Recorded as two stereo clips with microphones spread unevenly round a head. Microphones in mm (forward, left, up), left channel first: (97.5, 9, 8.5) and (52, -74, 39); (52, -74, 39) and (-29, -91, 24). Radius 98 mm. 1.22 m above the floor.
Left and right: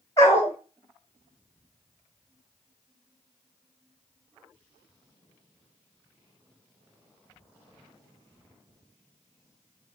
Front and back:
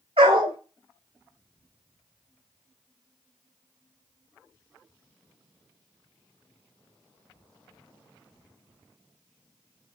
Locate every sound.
0.2 s a dog barking: 140° left, 2 m